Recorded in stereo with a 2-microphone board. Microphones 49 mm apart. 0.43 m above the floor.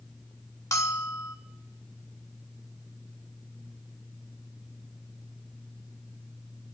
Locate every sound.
0.7 s a bell: 80° left, 0.9 m